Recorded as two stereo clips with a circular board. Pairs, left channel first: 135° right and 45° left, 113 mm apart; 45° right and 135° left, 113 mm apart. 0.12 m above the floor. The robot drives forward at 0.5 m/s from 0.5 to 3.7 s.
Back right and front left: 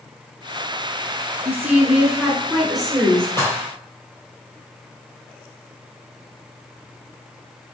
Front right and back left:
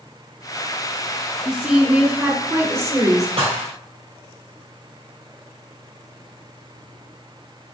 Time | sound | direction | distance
1.4 | a woman speaking | 60° left | 1.3 m
3.4 | dishes clattering | 160° left | 1.9 m